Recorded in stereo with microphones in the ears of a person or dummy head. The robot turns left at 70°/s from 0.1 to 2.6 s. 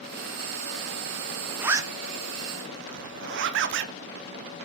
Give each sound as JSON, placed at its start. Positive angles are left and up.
{"t": 1.6, "sound": "a zipper", "side_deg": 0, "distance_m": 0.6}